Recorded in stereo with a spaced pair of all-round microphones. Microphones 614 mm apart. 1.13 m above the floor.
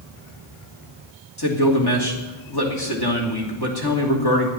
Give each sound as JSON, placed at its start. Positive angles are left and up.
{"t": 1.4, "sound": "a man speaking", "side_deg": 40, "distance_m": 2.5}